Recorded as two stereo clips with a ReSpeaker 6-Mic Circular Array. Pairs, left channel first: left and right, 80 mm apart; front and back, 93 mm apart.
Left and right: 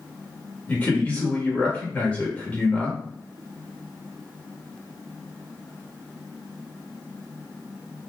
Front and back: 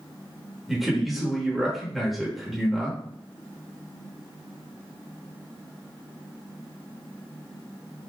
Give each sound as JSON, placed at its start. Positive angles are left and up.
{"t": 0.7, "sound": "a man speaking", "azimuth_deg": 95, "distance_m": 1.3}